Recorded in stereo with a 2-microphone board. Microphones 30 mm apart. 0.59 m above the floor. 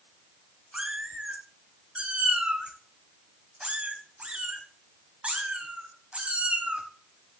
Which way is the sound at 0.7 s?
40° right (ahead or behind).